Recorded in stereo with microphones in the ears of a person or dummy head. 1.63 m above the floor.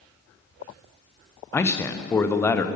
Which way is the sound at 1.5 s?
10° left (ahead or behind).